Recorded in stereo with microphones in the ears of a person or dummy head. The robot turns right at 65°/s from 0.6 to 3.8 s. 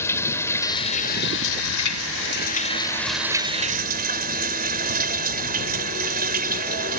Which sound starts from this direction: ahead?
Running water, at 0.0 s.